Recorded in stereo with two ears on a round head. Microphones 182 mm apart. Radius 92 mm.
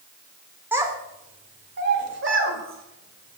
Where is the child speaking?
10° right (ahead or behind), 1.2 m; by 3.4 s 75° right (ahead or behind), 2.5 m.